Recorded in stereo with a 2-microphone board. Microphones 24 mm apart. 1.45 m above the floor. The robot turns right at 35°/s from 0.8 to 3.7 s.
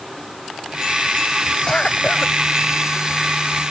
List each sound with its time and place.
1.7 s a cough: 20° left (ahead or behind); by 2.3 s 45° left (ahead or behind)